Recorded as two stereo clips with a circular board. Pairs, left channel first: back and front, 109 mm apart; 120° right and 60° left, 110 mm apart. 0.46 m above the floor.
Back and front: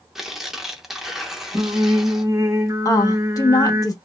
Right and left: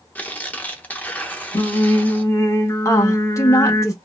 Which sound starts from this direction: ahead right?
Singing, at 1.5 s.